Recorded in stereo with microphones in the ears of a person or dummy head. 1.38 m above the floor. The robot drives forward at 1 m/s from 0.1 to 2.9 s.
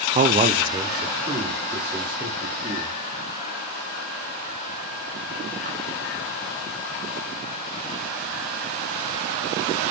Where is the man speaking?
35° right (ahead or behind), 0.5 m; by 3.0 s 5° right (ahead or behind), 3 m.